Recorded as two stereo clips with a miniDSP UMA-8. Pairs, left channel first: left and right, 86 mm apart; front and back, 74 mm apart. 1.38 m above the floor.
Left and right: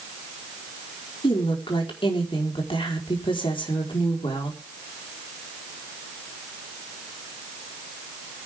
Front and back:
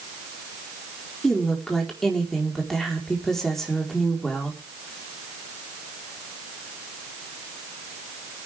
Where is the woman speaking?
85° left, 4.5 m.